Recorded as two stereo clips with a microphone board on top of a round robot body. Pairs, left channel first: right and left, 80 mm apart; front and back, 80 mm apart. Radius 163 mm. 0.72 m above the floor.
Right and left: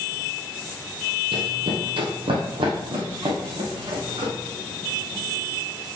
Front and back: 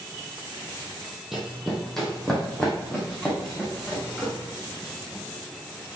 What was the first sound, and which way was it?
Running footsteps, 95° left.